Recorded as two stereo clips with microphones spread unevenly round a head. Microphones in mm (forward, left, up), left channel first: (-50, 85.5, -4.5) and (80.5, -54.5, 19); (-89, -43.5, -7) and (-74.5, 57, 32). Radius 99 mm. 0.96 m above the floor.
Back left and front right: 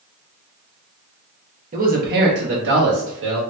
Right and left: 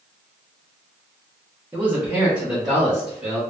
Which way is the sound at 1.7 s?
15° right.